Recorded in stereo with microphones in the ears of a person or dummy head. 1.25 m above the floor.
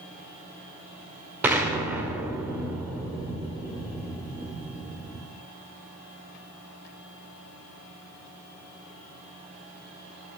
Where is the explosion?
10° right (ahead or behind), 1.5 m.